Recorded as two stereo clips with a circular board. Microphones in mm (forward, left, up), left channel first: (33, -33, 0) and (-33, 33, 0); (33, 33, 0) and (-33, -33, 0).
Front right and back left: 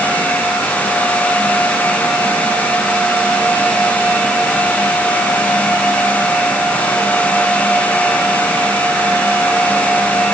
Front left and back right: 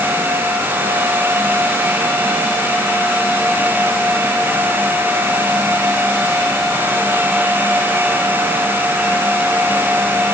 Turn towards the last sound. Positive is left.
No sound to turn to.